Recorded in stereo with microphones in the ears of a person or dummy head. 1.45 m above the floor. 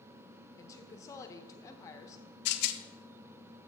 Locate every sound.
0.6 s a woman speaking: 15° left (ahead or behind), 1.0 m
2.5 s a rattle: 60° left (ahead or behind), 0.8 m